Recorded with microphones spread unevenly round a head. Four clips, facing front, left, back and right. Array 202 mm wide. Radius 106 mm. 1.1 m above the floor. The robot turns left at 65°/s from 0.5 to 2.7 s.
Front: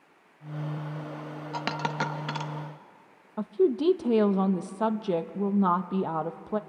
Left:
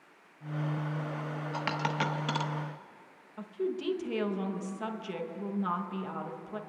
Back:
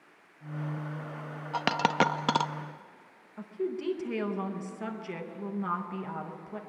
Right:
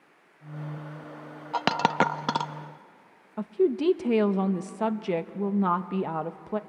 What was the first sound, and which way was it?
A dropped coin, 95° right.